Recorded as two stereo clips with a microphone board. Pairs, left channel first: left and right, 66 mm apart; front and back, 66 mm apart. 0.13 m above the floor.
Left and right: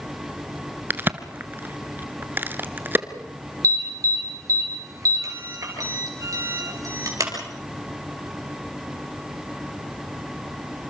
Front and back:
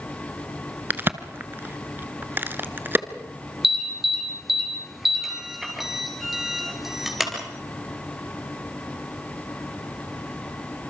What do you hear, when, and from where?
0.9 s a crack: 135° right, 1.0 m
3.6 s an alarm: 95° right, 4 m